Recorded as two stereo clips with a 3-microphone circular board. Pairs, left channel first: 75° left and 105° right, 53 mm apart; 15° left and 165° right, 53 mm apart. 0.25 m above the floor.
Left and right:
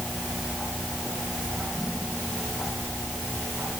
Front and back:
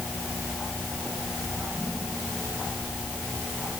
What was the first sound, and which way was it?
Only background noise.